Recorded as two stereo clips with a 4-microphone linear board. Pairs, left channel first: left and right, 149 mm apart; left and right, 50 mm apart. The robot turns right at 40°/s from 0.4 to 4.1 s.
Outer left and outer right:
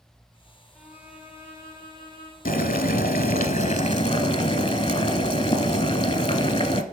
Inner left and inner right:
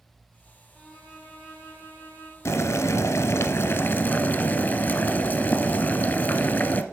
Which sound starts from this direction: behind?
A violin, at 0.7 s.